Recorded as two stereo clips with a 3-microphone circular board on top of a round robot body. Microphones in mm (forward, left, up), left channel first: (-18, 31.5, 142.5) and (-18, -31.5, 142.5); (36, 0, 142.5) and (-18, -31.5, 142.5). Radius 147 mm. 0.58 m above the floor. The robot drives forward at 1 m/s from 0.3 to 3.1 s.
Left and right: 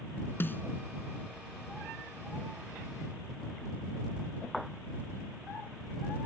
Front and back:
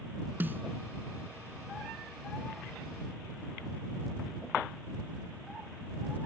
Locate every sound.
0.4 s a snare drum: 150° left